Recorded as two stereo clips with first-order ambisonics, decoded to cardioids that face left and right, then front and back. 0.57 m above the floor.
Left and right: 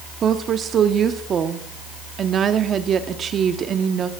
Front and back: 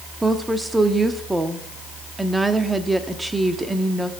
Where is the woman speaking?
105° right, 0.8 m.